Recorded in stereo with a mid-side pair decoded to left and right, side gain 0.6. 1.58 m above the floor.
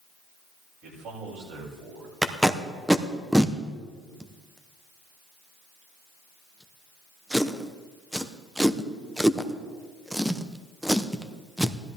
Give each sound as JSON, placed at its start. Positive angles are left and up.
{"t": 0.8, "sound": "a man speaking", "azimuth_deg": -70, "distance_m": 7.5}
{"t": 2.2, "sound": "tape being pulled", "azimuth_deg": -5, "distance_m": 1.0}